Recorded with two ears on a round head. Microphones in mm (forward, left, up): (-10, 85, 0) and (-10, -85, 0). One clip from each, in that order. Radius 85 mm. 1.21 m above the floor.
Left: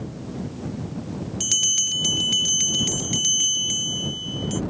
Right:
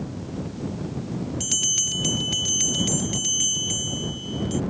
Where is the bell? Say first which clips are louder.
Left 3 dB; 15° left (ahead or behind).